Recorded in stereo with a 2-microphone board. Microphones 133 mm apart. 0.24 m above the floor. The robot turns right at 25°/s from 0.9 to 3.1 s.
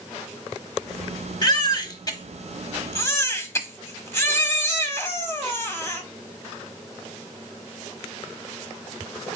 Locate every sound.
1.4 s a baby crying: 90° left, 1.0 m; by 6.0 s 135° left, 1.0 m